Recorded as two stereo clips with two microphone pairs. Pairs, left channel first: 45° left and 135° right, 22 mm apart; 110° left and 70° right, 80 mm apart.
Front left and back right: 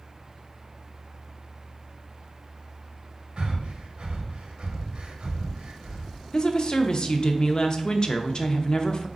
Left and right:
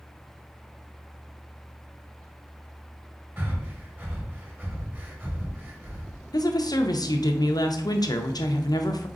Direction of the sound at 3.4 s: 130° right.